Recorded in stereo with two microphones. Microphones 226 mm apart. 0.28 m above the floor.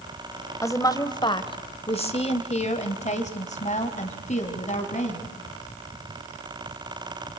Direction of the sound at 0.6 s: 15° left (ahead or behind).